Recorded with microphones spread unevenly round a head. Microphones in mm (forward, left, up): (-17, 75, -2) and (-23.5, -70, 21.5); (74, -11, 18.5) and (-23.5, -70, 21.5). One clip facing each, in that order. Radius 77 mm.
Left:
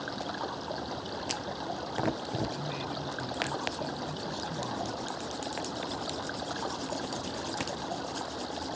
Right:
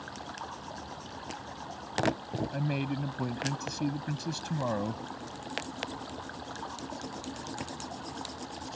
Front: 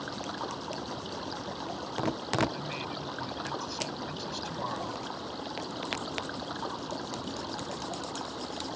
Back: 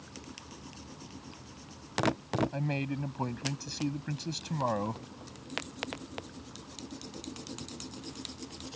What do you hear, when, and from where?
0.0 s running water: 40° left
2.5 s a man speaking: 105° right